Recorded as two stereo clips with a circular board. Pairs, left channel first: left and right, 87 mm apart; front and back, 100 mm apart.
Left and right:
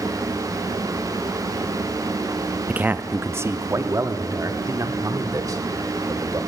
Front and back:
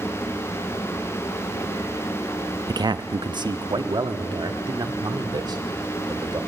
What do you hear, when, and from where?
2.7 s a man speaking: 160° right, 0.6 m; by 6.4 s 135° right, 2.5 m